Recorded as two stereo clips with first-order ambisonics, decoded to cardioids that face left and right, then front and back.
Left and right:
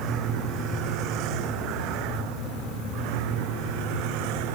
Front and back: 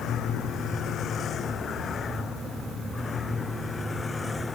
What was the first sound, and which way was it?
A vehicle, 50° right.